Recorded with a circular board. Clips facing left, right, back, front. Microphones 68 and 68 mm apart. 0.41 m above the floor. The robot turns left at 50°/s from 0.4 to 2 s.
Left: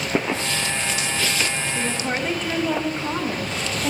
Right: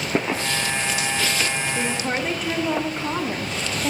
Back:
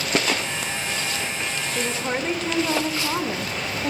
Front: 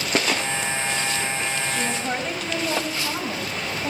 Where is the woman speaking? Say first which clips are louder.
Left 1 dB, even; 155° right, 1.3 m; by 3.9 s 170° right, 1.3 m.